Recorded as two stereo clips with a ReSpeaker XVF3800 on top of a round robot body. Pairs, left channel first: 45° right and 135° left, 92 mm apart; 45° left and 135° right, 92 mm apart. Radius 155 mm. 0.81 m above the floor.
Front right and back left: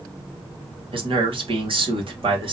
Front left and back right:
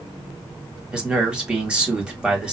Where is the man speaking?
145° left, 2 m.